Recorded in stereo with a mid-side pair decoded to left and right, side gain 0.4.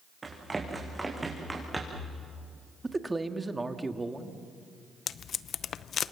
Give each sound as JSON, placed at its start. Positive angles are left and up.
{"t": 0.2, "sound": "running footsteps", "azimuth_deg": -25, "distance_m": 6.5}
{"t": 2.8, "sound": "a man speaking", "azimuth_deg": -20, "distance_m": 1.9}
{"t": 5.1, "sound": "tape being pulled", "azimuth_deg": 60, "distance_m": 0.6}